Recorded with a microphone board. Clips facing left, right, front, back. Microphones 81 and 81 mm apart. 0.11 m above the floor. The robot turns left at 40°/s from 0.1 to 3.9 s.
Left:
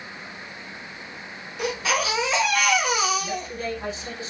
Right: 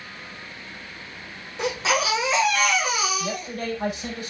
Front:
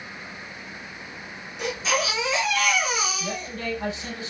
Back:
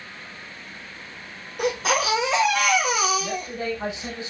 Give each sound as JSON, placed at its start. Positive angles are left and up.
{"t": 1.6, "sound": "a baby crying", "azimuth_deg": -145, "distance_m": 3.0}
{"t": 3.2, "sound": "a man speaking", "azimuth_deg": -85, "distance_m": 3.5}